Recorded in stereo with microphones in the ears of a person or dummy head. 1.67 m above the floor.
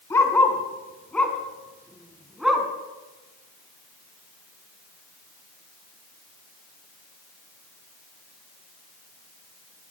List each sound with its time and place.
0.1 s a dog barking: 15° left (ahead or behind), 4 m; by 2.7 s 5° right (ahead or behind), 4 m